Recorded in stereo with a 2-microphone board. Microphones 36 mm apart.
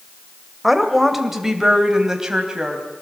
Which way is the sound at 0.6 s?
Centre (ahead or behind).